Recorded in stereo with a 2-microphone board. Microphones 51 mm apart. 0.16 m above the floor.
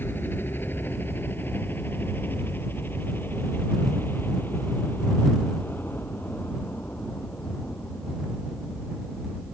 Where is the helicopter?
45° left (ahead or behind); by 9.5 s 40° left (ahead or behind).